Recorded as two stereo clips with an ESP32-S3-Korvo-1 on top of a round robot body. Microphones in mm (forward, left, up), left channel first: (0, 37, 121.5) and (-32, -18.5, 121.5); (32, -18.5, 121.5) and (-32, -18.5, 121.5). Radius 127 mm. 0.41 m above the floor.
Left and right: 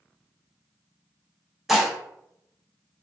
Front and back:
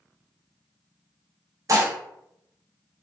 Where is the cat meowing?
No cat meowing in this recording.